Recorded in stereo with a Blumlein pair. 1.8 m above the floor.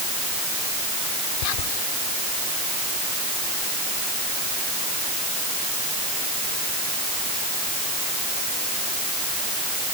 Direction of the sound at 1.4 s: 45° left.